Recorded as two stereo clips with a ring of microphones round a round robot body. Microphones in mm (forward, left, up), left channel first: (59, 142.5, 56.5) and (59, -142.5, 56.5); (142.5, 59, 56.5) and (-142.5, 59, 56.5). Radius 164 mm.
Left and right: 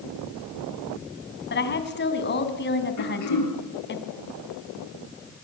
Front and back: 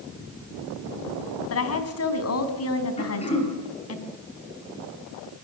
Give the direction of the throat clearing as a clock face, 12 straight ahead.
10 o'clock.